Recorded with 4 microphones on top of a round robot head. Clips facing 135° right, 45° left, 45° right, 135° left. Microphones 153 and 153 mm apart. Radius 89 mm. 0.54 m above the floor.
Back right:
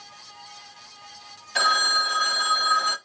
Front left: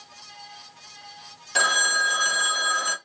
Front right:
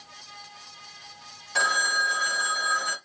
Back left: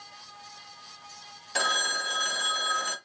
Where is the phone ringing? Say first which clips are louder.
Even, front right 2 dB; 75° left, 1.0 m.